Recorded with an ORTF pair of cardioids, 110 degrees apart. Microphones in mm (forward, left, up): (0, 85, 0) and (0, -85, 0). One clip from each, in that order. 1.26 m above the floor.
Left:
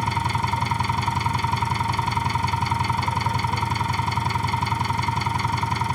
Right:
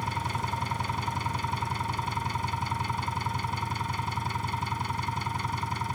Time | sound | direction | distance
0.0 | an engine running | 40° left | ?